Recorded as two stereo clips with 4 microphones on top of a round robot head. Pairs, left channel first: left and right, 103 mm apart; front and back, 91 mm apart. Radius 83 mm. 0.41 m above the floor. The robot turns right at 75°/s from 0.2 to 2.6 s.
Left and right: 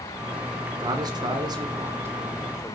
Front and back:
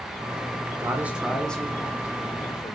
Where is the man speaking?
130° right, 1.7 m; by 2.8 s 5° left, 1.7 m.